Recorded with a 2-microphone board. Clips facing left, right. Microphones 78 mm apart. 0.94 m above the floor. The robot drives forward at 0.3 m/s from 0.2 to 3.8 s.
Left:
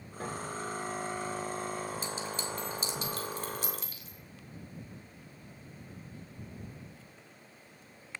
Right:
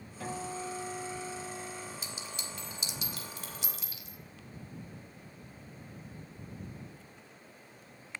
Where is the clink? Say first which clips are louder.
Left 7 dB; 40° left (ahead or behind), 4.5 m; by 4.2 s 45° left (ahead or behind), 4 m.